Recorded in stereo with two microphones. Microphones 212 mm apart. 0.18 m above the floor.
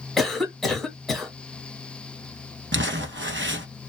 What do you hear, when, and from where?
0.2 s a cough: centre (ahead or behind), 1.2 m
2.7 s crumpling: 60° right (ahead or behind), 0.6 m